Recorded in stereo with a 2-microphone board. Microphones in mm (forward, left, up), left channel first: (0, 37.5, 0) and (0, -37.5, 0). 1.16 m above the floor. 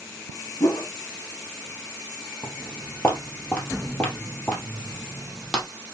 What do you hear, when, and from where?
0.6 s a whoosh: 50° left (ahead or behind), 1.3 m
2.4 s footsteps: 20° left (ahead or behind), 1.4 m; by 5.7 s 10° left (ahead or behind), 1.6 m